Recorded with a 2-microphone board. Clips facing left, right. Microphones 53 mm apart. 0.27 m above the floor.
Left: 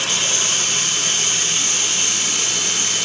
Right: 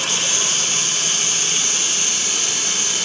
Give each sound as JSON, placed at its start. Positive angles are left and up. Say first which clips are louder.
{"t": 0.0, "sound": "running water", "louder": "left 1 dB", "side_deg": 85, "distance_m": 8.0}